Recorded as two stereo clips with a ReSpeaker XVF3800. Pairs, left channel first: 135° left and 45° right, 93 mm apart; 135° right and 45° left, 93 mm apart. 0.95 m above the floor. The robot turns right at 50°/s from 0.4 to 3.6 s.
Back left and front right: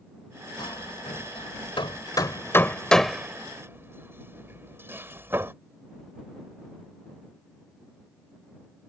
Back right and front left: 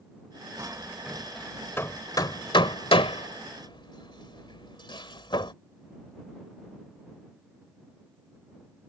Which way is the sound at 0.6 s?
100° left.